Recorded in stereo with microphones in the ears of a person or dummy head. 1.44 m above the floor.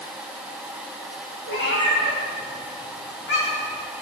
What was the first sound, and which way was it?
A cat meowing, 70° left (ahead or behind).